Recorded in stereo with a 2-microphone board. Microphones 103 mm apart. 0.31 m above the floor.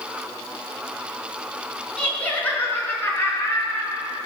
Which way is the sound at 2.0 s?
10° left (ahead or behind).